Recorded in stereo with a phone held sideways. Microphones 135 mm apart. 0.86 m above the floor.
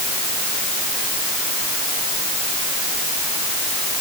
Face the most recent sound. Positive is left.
No sound to turn to.